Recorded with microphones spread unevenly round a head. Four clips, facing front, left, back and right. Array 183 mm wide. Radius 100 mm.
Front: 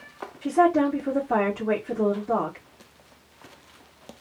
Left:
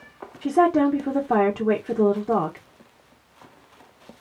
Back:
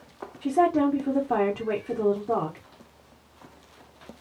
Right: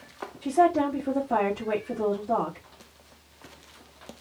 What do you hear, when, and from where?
0.4 s a woman speaking: 80° left, 1.2 m